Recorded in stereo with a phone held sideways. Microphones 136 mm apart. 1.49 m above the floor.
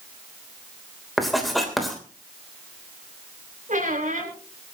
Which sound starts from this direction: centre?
Writing, at 1.2 s.